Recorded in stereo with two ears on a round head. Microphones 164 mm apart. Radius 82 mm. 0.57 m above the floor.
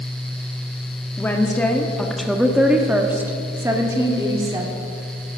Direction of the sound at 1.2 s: 10° left (ahead or behind).